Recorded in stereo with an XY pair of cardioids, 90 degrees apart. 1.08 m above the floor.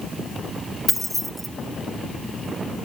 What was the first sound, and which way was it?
Keys jangling, straight ahead.